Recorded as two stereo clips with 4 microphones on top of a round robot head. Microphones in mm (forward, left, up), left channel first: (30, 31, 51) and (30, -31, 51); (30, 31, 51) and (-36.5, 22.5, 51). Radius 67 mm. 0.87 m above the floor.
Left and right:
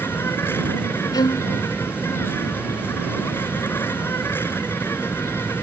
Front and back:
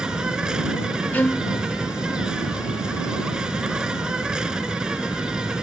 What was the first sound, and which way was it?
An insect, 120° left.